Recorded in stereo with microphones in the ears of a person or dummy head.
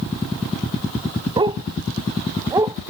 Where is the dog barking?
20° right (ahead or behind); by 2.8 s 15° right (ahead or behind).